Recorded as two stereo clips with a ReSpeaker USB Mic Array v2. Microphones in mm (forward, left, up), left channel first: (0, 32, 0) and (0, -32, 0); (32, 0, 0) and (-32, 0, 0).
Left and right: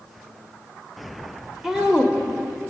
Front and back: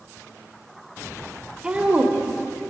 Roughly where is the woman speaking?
Behind.